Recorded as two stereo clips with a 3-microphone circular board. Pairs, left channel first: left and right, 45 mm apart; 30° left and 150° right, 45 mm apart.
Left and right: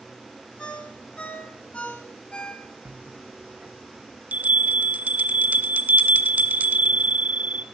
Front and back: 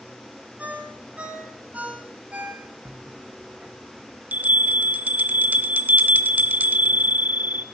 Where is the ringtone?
150° left, 1.4 m.